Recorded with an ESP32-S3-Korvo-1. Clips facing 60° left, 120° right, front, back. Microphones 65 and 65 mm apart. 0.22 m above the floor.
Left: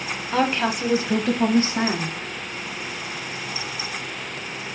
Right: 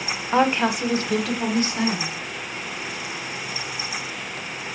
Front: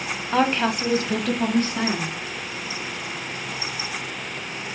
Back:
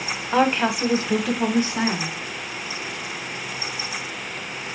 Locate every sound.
0.3 s a woman speaking: 100° right, 1.0 m; by 2.2 s 95° left, 1.6 m